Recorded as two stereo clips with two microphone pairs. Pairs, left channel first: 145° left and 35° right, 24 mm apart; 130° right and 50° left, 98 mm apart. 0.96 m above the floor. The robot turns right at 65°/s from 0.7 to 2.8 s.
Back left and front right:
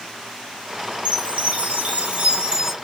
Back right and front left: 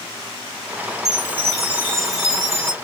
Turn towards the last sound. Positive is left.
turn(degrees=40)